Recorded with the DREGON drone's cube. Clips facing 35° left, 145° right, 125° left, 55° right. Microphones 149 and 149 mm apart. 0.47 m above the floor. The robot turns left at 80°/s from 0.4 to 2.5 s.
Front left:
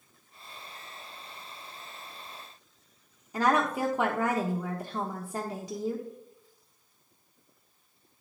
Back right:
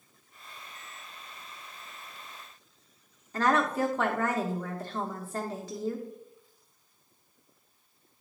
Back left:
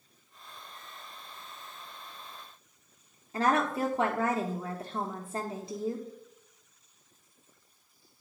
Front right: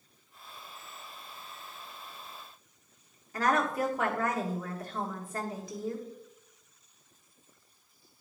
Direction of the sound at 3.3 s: 95° left.